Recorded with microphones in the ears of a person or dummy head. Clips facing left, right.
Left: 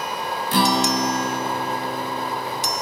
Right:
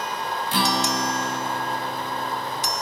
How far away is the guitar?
About 0.5 m.